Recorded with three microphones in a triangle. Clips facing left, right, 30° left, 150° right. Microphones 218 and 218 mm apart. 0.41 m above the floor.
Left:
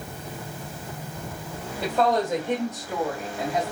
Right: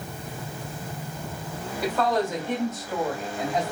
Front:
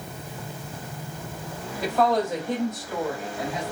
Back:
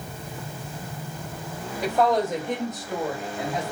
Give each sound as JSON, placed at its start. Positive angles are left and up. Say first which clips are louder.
{"t": 1.8, "sound": "a woman speaking", "louder": "left 2 dB, back 1 dB", "azimuth_deg": 145, "distance_m": 1.9}